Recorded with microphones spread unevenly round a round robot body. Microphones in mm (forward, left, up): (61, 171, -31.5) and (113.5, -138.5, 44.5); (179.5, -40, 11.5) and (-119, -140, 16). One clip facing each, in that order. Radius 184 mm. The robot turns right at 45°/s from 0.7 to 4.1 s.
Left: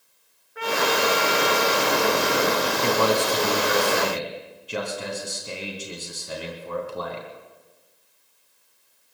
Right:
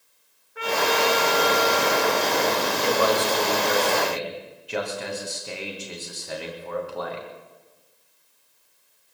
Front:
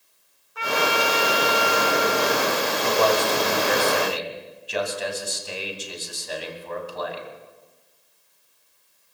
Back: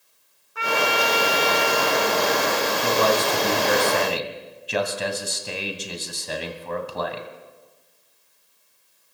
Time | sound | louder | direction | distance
0.6 | a trumpet | even, even | 170° right | 2.5 m
2.8 | a man speaking | even, front 1 dB | 120° left | 2.5 m